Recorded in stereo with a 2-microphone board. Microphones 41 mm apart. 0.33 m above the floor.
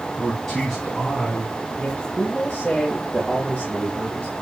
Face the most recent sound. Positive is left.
turn(degrees=35)  # may be behind; listen again after turning